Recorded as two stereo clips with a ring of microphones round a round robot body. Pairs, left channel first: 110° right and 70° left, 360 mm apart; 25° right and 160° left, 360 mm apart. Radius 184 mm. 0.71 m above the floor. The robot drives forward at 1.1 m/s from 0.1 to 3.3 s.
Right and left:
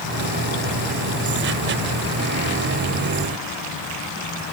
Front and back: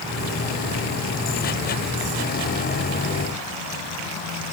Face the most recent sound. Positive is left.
No sound to turn to.